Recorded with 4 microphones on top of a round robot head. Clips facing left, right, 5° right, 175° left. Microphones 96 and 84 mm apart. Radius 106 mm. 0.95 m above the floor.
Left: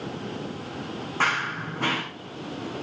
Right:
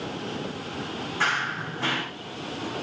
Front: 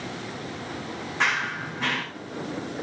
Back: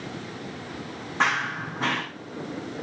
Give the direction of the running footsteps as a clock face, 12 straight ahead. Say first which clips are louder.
Left 1 dB, back 2 dB; 8 o'clock.